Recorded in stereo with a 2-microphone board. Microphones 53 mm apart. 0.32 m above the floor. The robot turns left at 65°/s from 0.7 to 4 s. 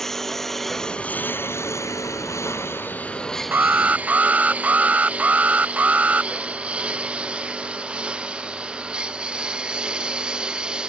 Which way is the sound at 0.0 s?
10° left (ahead or behind).